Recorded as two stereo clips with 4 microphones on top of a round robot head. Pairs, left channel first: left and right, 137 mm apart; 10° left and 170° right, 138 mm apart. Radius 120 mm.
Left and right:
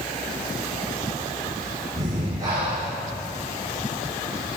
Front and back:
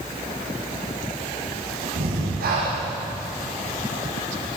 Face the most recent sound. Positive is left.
turn(degrees=-160)